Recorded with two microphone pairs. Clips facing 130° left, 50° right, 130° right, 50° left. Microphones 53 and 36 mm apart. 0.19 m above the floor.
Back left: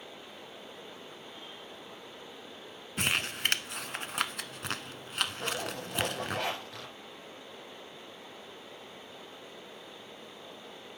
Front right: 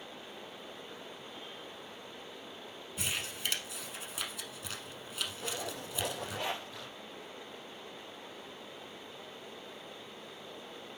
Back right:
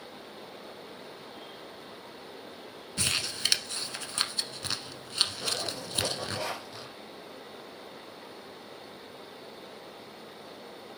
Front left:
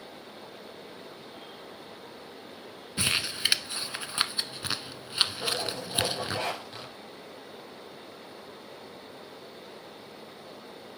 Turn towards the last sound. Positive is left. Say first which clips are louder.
# back left 4 dB, front left 2 dB
turn(degrees=105)